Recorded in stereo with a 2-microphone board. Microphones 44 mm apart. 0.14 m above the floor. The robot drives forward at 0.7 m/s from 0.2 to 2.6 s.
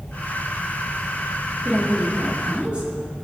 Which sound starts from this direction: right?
A woman speaking, at 1.6 s.